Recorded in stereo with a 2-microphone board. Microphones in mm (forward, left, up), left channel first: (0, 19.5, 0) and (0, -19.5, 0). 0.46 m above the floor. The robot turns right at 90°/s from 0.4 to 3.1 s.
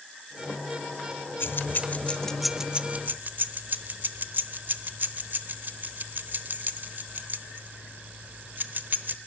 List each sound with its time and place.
1.4 s keys jangling: 65° left (ahead or behind), 0.9 m; by 9.2 s 50° right (ahead or behind), 0.9 m